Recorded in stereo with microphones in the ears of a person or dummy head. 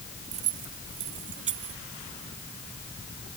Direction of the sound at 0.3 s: 30° right (ahead or behind).